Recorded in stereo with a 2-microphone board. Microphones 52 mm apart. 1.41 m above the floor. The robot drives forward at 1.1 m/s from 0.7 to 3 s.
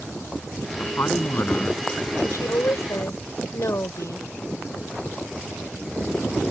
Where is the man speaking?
40° left (ahead or behind); by 1.8 s 35° left (ahead or behind).